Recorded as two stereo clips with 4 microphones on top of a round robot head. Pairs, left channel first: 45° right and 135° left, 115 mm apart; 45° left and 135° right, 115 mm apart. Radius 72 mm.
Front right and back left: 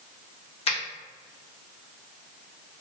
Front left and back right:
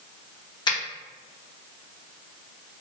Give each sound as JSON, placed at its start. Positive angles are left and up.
{"t": 0.7, "sound": "a finger snap", "azimuth_deg": -10, "distance_m": 1.1}